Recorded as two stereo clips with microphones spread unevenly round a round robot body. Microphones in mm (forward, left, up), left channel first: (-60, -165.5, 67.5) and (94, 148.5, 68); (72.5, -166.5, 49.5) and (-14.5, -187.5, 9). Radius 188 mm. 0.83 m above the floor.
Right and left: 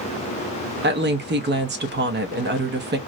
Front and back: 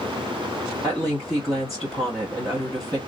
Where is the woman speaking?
120° left, 0.9 m.